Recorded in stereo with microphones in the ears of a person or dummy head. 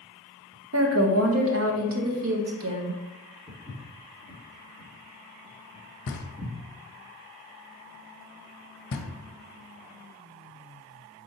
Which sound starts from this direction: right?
A woman speaking, at 0.7 s.